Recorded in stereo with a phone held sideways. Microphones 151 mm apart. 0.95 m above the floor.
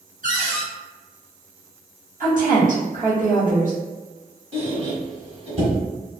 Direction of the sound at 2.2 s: 60° right (ahead or behind).